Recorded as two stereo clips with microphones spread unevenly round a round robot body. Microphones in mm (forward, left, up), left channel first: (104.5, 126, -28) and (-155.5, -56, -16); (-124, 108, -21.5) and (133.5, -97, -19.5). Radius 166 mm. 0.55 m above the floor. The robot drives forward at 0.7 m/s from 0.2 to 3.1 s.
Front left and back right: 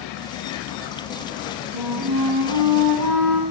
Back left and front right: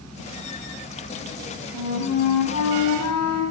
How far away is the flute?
About 3 m.